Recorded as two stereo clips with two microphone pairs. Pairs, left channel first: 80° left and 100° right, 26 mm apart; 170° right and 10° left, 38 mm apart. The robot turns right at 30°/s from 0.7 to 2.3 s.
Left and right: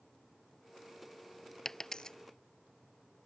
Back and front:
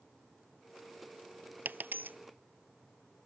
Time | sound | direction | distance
1.6 | a dropped coin | 10° left | ?